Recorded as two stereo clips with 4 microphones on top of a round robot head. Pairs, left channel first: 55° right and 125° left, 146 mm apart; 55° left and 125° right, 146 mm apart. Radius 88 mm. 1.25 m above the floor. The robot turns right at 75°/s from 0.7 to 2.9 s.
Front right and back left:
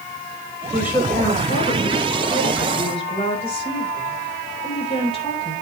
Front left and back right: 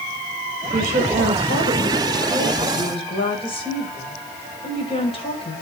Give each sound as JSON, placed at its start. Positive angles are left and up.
{"t": 0.7, "sound": "a woman speaking", "azimuth_deg": -165, "distance_m": 5.0}